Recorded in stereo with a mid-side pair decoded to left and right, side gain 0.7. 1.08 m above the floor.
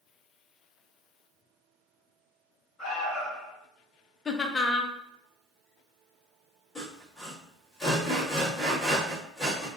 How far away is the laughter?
About 0.7 m.